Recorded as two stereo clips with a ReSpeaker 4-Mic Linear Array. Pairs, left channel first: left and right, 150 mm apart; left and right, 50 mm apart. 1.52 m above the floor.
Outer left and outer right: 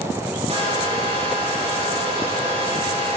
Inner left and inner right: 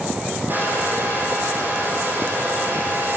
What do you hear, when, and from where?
0.5 s a hair dryer: 45° right (ahead or behind), 9.5 m